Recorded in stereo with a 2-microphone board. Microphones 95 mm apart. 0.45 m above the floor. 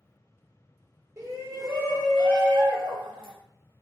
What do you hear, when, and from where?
1.2 s a shout: 35° right (ahead or behind), 1.1 m; by 3.3 s 60° right (ahead or behind), 2 m